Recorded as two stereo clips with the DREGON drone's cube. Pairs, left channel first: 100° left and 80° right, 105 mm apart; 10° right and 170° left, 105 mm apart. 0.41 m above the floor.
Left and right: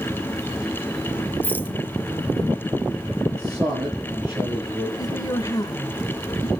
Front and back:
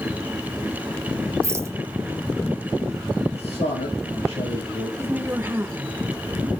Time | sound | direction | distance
1.4 | a rattle | 145° left | 0.6 m
3.3 | a man speaking | 15° right | 9.5 m
5.0 | a woman speaking | 115° left | 1.1 m